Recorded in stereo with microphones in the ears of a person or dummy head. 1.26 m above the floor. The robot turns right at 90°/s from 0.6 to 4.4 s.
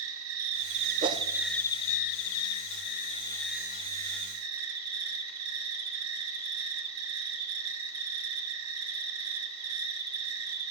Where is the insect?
75° right, 1.3 m; by 10.7 s 95° right, 1.3 m.